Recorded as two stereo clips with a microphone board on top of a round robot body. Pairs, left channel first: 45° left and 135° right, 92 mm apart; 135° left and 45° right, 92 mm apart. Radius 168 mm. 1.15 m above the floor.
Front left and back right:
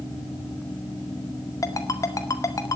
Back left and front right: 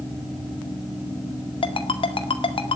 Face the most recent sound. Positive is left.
turn(degrees=105)